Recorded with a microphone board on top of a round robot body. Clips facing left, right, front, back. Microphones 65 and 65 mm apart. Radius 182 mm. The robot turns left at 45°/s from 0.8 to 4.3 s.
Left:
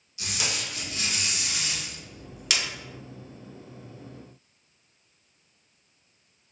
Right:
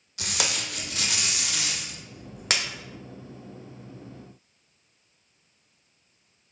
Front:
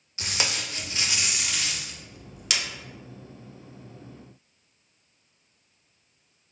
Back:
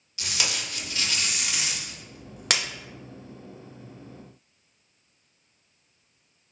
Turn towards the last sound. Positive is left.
turn(degrees=140)